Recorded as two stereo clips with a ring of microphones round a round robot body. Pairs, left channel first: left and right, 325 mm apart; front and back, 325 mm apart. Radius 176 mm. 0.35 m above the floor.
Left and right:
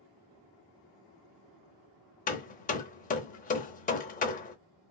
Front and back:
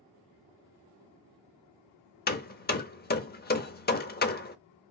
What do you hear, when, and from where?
2.3 s hammering: 40° left, 0.6 m